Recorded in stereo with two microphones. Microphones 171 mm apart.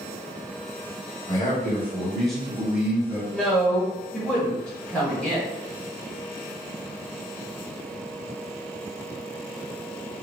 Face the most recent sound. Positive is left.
turn(degrees=5)  # may be behind; listen again after turning